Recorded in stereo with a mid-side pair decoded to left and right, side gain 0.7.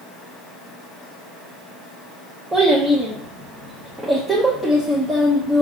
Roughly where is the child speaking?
Ahead.